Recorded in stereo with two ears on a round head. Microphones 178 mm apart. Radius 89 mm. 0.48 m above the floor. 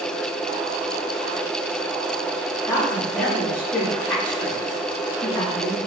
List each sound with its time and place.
2.7 s a woman speaking: 10° left (ahead or behind), 1.4 m